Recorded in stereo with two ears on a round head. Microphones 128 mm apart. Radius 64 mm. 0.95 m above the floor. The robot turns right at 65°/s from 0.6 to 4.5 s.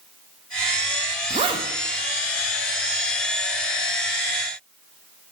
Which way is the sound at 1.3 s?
40° right (ahead or behind).